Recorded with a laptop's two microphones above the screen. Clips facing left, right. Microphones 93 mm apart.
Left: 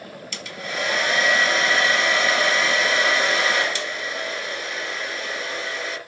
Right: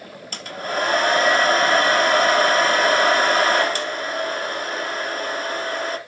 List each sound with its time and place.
0.3 s a hair dryer: 45° right (ahead or behind), 1.1 m